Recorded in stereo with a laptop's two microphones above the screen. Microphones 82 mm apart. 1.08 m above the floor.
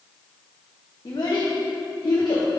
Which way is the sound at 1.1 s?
55° left (ahead or behind).